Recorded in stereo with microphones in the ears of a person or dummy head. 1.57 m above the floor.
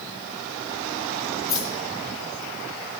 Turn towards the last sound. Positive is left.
turn(degrees=60)  # may be behind; listen again after turning